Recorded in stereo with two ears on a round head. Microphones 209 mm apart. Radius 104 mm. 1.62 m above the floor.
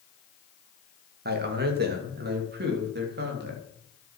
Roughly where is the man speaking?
Right.